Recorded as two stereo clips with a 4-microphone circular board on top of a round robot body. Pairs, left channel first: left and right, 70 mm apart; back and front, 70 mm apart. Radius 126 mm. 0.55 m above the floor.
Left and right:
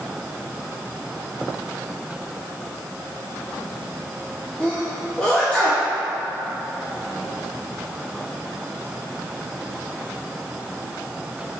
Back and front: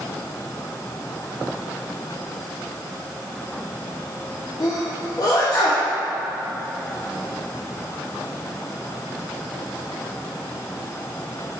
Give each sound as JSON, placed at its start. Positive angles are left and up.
{"t": 4.6, "sound": "a sneeze", "azimuth_deg": 165, "distance_m": 1.3}